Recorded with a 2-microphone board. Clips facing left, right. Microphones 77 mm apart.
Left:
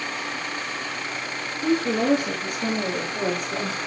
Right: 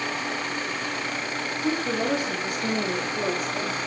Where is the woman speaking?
65° left (ahead or behind), 2.5 m; by 3.8 s 70° left (ahead or behind), 3.5 m.